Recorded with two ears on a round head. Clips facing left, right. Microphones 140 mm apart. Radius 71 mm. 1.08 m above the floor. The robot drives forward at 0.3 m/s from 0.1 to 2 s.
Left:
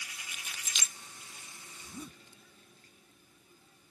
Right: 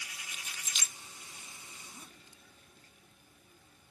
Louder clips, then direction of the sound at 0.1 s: Even; 45° left (ahead or behind).